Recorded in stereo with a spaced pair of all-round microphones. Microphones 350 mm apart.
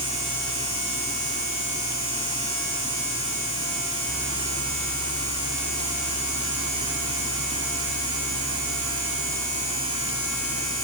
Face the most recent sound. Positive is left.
turn(degrees=60)  # may be behind; listen again after turning